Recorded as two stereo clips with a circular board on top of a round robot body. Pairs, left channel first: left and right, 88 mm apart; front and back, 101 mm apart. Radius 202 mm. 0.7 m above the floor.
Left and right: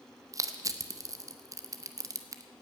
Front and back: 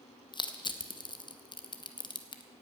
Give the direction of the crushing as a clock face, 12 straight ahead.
1 o'clock.